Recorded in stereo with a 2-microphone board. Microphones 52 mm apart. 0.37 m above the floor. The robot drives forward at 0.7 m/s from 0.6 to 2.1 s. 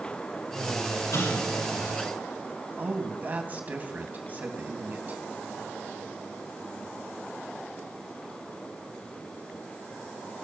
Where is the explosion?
80° left, 9 m.